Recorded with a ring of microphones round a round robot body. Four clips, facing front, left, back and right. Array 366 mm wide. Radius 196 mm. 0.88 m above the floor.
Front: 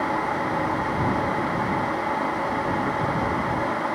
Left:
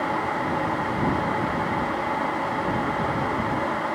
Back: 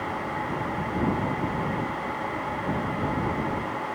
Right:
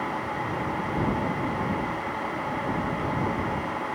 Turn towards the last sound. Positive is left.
No sound to turn to.